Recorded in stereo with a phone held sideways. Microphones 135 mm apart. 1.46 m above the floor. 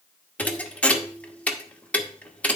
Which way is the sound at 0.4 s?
10° left (ahead or behind).